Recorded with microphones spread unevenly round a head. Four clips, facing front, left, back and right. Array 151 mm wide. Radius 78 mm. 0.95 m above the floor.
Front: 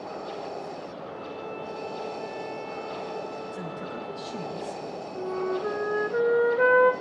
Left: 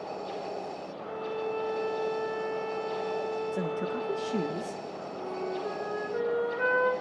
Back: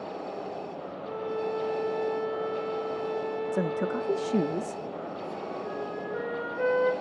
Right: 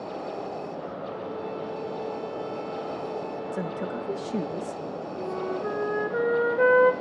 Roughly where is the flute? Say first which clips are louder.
Right 3 dB, front 6 dB; ahead right.